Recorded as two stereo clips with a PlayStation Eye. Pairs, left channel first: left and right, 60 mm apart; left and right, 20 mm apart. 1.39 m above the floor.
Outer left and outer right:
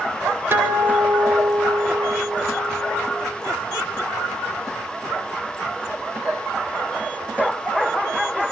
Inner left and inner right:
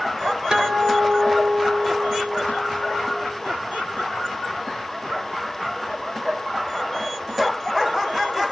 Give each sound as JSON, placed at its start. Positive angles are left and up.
{"t": 0.5, "sound": "a guitar", "side_deg": -40, "distance_m": 6.0}